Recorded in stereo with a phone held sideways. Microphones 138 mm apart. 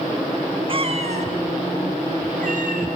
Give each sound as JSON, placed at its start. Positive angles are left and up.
{"t": 0.7, "sound": "a cat meowing", "side_deg": -40, "distance_m": 1.4}